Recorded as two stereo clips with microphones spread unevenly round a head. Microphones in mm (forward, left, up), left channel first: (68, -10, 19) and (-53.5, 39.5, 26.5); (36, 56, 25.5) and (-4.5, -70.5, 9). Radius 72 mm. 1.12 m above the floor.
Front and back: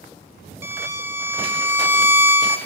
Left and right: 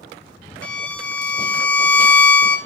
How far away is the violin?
About 0.5 m.